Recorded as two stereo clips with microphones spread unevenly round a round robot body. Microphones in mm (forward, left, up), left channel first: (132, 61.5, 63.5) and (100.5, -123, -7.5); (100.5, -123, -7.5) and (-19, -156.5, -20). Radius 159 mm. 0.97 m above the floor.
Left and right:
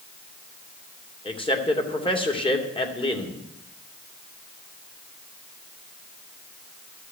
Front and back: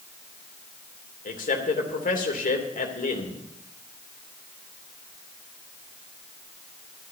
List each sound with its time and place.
1.2 s a man speaking: 15° left, 3 m